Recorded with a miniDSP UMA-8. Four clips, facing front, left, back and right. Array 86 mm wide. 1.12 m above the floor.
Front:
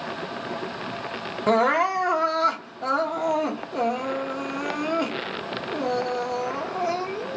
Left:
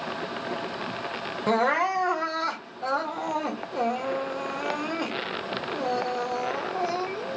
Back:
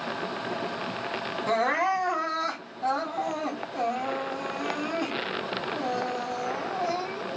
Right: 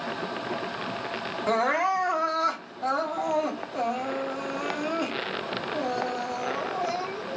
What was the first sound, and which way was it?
Crying, 25° left.